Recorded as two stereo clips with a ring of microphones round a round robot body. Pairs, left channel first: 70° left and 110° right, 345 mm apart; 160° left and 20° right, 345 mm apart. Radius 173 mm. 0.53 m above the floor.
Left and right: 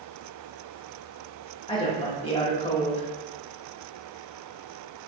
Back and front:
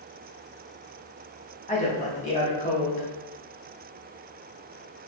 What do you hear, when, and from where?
1.7 s a woman speaking: 120° left, 0.9 m